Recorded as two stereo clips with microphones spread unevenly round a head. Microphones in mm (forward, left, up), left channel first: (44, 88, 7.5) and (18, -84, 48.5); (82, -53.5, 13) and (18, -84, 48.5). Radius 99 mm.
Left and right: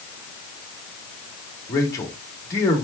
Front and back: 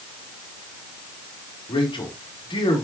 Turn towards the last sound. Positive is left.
turn(degrees=5)